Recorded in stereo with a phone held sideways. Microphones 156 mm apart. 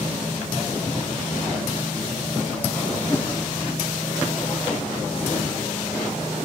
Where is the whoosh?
20° left (ahead or behind), 0.6 m.